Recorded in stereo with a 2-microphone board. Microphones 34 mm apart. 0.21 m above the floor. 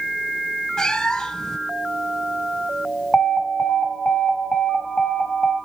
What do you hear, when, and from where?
0.8 s a cat meowing: 20° left (ahead or behind), 0.8 m
3.1 s an alarm: 30° left (ahead or behind), 2.0 m